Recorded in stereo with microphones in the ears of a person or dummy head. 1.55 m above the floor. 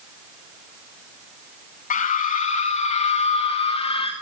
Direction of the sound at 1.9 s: 45° left (ahead or behind).